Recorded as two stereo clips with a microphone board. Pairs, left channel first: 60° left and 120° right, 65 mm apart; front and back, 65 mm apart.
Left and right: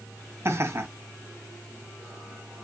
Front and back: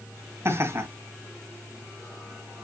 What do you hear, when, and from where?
0.5 s laughter: 150° right, 1.8 m